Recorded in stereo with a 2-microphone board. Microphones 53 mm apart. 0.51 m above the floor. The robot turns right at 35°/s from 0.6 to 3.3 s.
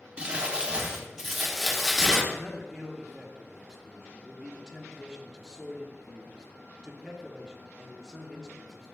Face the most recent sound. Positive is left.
turn(degrees=-10)  # may be behind; listen again after turning